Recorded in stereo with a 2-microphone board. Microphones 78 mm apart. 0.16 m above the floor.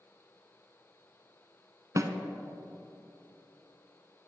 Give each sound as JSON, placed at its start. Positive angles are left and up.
{"t": 2.0, "sound": "a snare drum", "side_deg": -45, "distance_m": 0.7}